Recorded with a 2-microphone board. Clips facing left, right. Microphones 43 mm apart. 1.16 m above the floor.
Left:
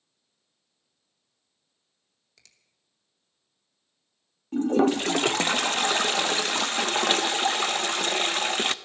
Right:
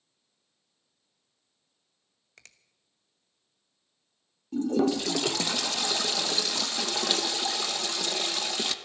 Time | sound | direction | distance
2.4 | a finger snap | 50° right (ahead or behind) | 1.0 m
4.5 | a toilet flushing | 45° left (ahead or behind) | 0.5 m